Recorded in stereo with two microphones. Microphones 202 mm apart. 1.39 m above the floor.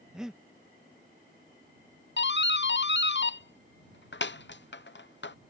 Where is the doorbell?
60° left (ahead or behind).